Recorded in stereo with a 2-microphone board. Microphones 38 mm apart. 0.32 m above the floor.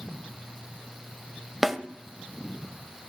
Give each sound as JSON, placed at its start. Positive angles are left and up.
{"t": 1.6, "sound": "a snare drum", "side_deg": -5, "distance_m": 1.0}